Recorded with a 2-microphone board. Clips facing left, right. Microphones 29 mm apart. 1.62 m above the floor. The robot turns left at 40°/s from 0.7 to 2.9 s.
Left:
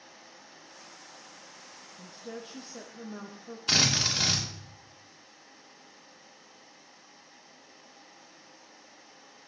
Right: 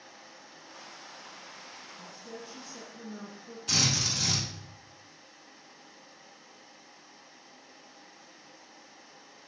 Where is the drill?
45° left (ahead or behind), 2.5 m.